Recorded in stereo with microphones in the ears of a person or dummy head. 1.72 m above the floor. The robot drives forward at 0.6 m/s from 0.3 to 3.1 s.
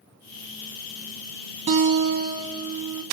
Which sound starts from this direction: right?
A guitar, at 1.7 s.